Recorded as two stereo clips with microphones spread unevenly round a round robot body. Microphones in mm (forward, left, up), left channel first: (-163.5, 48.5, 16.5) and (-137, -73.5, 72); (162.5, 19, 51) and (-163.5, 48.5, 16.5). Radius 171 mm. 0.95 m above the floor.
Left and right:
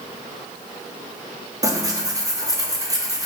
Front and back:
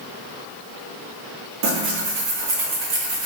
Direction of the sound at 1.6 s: 150° right.